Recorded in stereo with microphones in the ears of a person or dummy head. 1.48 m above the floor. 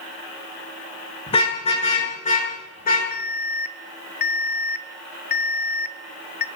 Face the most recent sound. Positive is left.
turn(degrees=50)  # may be behind; listen again after turning